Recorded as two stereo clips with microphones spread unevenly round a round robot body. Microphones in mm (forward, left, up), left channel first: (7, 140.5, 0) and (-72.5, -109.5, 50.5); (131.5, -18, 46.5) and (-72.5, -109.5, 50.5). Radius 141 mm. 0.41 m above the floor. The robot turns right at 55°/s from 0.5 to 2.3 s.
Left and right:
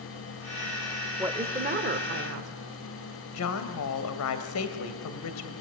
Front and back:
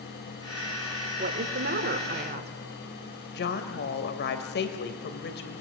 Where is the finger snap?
I don't hear a finger snap.